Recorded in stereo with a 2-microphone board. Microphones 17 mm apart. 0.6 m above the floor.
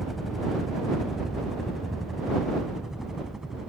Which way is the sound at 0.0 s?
15° right (ahead or behind).